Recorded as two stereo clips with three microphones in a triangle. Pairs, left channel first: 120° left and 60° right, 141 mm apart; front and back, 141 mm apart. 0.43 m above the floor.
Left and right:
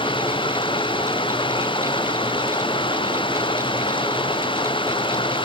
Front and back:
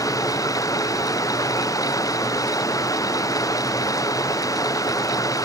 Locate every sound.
0.0 s running water: 65° left